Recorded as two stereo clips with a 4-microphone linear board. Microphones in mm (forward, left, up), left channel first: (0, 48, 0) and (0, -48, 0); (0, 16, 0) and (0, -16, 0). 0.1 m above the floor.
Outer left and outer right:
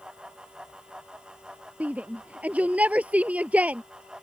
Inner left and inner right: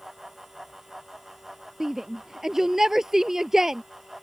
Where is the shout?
15° right (ahead or behind).